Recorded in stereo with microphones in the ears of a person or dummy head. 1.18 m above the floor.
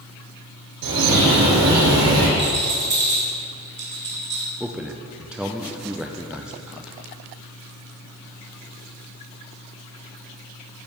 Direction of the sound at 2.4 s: 35° right (ahead or behind).